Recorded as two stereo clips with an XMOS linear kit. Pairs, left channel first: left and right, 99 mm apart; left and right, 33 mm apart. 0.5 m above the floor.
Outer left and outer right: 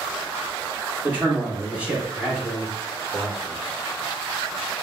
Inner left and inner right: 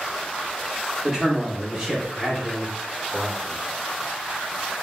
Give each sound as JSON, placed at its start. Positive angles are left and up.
{"t": 1.0, "sound": "a man speaking", "side_deg": -20, "distance_m": 1.4}